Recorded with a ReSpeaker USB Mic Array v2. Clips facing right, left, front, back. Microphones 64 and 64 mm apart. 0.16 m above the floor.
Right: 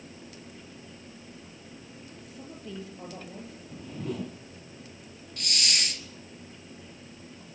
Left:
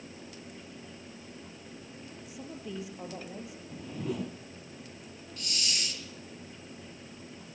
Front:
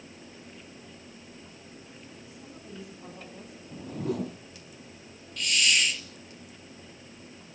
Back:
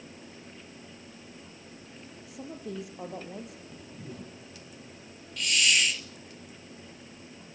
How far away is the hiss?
About 1.1 m.